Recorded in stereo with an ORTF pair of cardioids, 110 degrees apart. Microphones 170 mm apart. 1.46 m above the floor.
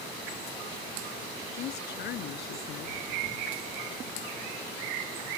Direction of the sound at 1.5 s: 70° left.